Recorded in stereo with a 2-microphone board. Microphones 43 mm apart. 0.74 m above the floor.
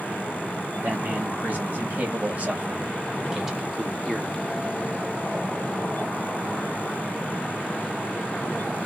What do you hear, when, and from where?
0.8 s a man speaking: 50° right (ahead or behind), 1.9 m; by 4.6 s 20° left (ahead or behind), 1.0 m